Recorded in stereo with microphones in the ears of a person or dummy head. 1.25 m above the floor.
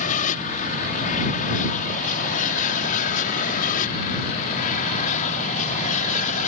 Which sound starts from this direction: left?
An aircraft, at 0.0 s.